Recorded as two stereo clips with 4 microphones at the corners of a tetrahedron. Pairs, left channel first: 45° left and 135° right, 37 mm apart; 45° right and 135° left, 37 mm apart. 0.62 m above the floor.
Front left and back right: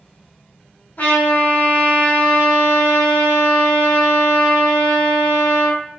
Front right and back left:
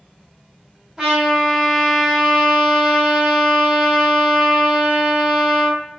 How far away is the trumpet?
About 2 m.